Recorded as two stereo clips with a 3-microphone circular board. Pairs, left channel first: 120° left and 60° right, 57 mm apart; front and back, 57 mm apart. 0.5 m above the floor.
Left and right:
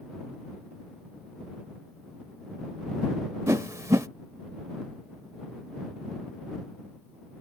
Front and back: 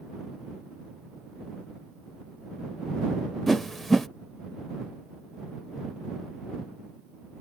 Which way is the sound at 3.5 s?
90° right.